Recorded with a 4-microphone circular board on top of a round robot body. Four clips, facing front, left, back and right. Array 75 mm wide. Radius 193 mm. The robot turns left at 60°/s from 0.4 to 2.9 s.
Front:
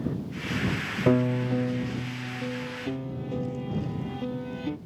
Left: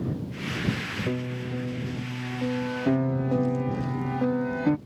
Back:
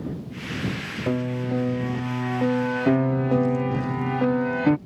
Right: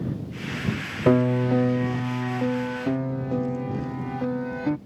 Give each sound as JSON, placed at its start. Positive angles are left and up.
{"t": 1.1, "sound": "a piano", "azimuth_deg": -75}